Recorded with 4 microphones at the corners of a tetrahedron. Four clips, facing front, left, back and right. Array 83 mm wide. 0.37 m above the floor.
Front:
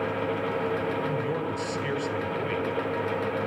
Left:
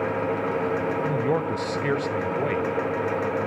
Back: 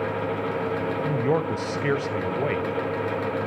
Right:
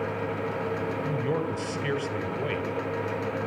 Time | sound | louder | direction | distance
1.0 | a man speaking | left 4 dB, back 5 dB | 145° left | 1.9 m